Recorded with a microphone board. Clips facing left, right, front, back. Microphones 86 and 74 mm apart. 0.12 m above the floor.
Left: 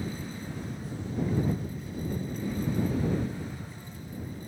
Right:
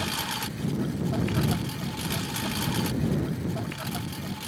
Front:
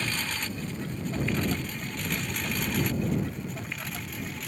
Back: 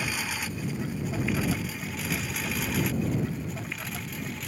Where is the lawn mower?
100° right; by 4.5 s 90° right.